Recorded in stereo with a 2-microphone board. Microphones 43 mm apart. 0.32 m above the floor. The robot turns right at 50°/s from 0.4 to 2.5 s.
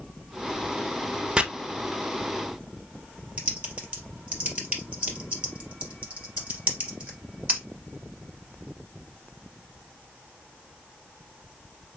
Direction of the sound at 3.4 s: 25° right (ahead or behind).